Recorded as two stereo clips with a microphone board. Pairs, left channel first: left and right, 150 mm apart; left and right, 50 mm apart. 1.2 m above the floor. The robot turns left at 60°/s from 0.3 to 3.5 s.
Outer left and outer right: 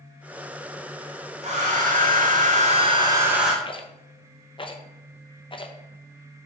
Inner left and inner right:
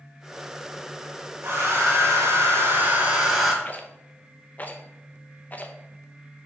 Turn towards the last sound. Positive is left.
turn(degrees=35)  # may be behind; listen again after turning